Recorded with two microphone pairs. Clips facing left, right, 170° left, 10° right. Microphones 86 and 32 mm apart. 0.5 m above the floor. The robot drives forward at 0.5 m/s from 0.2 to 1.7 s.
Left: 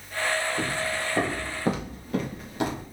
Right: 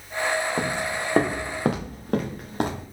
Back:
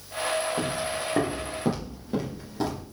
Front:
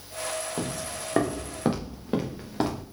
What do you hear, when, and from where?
0.6 s footsteps: 80° right, 2.5 m; by 2.8 s 50° right, 2.5 m